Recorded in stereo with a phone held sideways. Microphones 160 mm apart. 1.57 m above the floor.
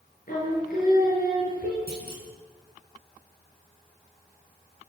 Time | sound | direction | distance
0.3 | singing | 60° left (ahead or behind) | 8 m
1.9 | a clunk | 75° left (ahead or behind) | 7.5 m